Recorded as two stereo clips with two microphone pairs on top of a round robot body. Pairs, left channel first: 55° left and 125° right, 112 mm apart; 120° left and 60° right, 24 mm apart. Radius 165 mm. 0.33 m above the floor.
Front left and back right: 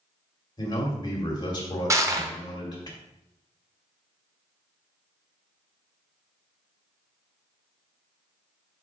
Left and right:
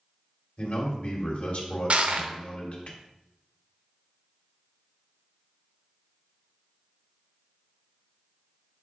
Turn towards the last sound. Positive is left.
turn(degrees=-70)